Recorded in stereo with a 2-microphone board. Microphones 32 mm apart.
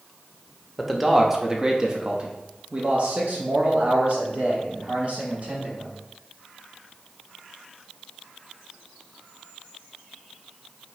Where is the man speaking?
Centre (ahead or behind), 1.0 m; by 5.9 s 45° right (ahead or behind), 2.5 m.